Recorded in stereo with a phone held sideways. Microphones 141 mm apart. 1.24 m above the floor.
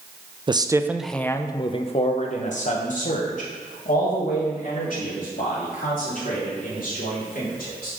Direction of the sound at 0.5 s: 35° right (ahead or behind).